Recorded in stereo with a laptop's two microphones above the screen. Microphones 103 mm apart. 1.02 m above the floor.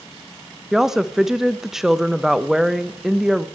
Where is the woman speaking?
5° right (ahead or behind), 0.5 m.